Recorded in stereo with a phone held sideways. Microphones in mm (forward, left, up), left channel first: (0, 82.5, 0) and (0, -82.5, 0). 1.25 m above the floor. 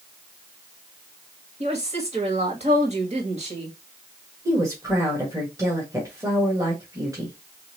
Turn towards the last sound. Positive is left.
turn(degrees=-20)  # may be behind; listen again after turning